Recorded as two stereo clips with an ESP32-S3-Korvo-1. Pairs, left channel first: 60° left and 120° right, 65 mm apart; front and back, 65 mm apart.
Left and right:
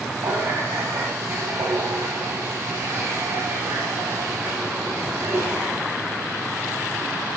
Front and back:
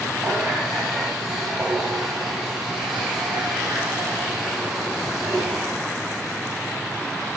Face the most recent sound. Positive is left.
turn(degrees=-95)